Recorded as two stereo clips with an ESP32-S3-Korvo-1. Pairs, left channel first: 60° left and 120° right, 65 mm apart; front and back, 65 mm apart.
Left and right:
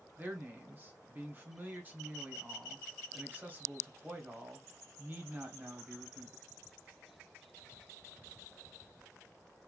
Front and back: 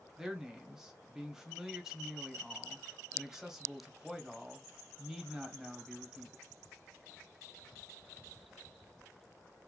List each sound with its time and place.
0.2 s a man speaking: 110° right, 1.0 m